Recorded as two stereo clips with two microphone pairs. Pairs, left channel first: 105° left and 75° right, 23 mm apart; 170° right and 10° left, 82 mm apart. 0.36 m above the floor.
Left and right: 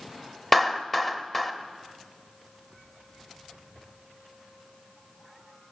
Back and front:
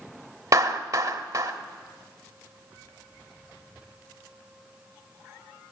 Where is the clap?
25° left, 1.1 m.